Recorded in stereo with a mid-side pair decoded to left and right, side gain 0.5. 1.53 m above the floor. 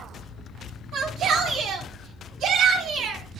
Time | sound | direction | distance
0.9 | a shout | 70° right | 4.5 m